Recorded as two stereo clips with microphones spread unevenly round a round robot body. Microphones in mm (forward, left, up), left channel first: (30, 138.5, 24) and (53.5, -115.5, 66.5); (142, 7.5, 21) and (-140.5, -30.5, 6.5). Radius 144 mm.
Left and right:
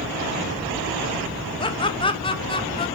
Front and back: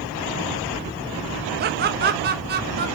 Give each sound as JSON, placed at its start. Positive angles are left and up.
{"t": 1.6, "sound": "laughter", "azimuth_deg": 150, "distance_m": 0.9}